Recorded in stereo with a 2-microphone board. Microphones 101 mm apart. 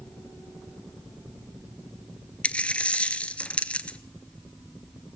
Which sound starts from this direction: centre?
A dropped coin, at 2.4 s.